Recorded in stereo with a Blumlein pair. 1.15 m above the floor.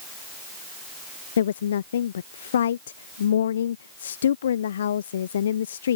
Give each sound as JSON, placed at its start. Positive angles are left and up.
{"t": 1.4, "sound": "a woman speaking", "azimuth_deg": 65}